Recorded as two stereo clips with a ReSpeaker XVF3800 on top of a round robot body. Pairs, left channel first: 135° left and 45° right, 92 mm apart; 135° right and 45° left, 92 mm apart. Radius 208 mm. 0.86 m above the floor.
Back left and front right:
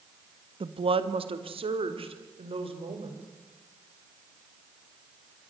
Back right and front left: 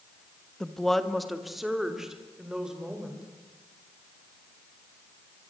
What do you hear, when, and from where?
0.6 s a woman speaking: 50° right, 1.7 m; by 3.2 s 40° right, 5 m